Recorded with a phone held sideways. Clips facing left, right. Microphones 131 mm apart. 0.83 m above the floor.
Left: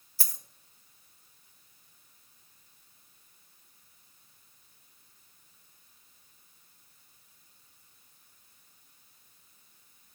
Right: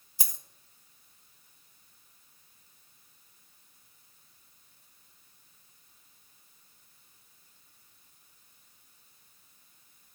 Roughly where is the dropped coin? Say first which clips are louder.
Right 1 dB; centre.